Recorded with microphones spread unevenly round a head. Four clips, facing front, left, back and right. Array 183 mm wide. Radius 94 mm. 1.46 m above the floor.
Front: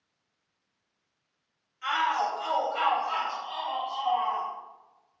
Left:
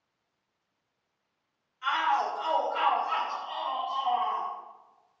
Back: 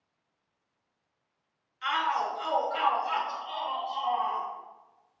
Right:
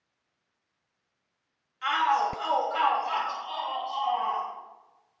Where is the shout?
110° right, 3 m; by 4.5 s 155° right, 4 m.